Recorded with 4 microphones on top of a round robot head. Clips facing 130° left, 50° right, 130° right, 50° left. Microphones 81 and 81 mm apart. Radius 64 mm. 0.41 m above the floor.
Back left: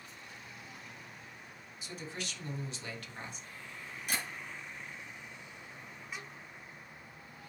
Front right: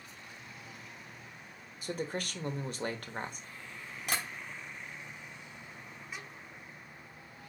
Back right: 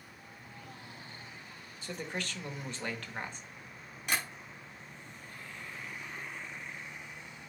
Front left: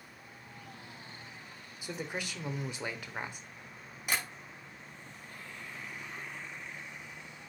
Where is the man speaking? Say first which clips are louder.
Front right 7 dB, even; 25° right, 1.3 m.